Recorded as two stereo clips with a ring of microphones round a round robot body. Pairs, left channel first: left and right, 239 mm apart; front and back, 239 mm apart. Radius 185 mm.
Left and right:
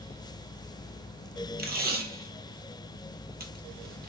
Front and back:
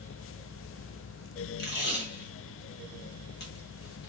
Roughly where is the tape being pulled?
Ahead right.